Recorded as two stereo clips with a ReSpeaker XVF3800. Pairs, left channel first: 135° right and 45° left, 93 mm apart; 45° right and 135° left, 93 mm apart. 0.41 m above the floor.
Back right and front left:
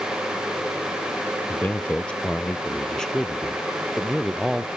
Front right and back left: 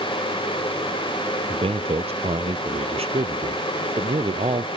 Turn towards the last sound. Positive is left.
turn(degrees=130)